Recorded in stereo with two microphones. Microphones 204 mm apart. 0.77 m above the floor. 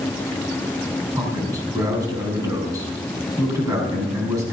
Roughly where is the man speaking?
Centre.